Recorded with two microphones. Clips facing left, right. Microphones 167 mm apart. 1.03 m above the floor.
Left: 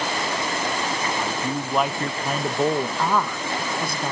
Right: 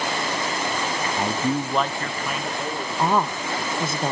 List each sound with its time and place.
1.2 s a man speaking: 40° right (ahead or behind), 0.6 m; by 2.9 s 55° left (ahead or behind), 1.1 m
3.0 s a woman speaking: 25° right (ahead or behind), 0.9 m